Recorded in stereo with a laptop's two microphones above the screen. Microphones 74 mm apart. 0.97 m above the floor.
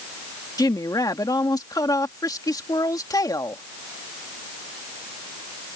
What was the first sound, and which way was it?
A woman speaking, 60° left (ahead or behind).